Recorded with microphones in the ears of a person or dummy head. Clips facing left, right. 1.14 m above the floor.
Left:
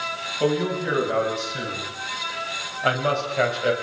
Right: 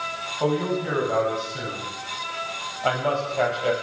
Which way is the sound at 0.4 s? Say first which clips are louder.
Left 1 dB; 25° left (ahead or behind).